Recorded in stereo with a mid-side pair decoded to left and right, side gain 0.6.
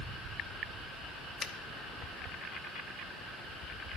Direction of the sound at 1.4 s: 35° left.